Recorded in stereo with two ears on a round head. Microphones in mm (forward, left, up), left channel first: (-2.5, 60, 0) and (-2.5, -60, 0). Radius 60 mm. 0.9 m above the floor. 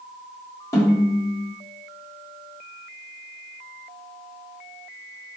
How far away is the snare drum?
About 1.4 m.